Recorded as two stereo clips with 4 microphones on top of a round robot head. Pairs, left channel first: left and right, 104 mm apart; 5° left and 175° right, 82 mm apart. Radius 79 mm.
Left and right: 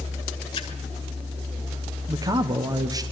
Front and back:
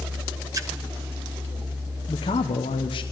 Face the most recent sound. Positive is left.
turn(degrees=-35)